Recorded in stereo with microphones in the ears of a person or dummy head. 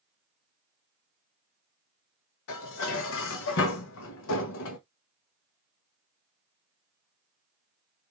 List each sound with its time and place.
2.5 s dishes clattering: 70° left (ahead or behind), 0.7 m